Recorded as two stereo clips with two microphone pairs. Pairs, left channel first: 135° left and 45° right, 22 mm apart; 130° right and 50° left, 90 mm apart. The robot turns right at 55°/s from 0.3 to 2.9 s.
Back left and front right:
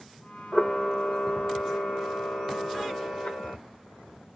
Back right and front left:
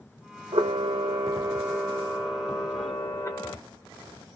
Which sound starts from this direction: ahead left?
A camera shutter, at 0.5 s.